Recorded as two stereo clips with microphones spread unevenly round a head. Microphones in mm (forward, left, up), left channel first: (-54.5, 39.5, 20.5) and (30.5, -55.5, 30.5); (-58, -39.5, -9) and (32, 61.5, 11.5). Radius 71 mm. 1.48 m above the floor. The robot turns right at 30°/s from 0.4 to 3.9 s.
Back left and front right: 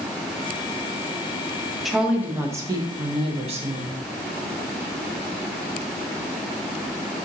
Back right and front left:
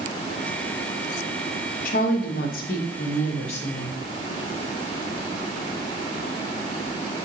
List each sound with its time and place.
1.9 s a woman speaking: 140° right, 0.7 m; by 4.0 s 75° right, 0.7 m